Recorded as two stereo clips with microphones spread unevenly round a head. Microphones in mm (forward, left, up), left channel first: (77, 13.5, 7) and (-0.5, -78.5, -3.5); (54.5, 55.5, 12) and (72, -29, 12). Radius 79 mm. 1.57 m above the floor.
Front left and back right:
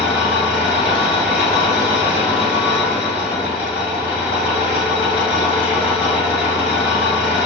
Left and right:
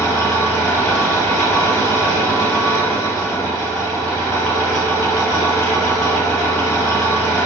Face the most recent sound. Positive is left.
turn(degrees=65)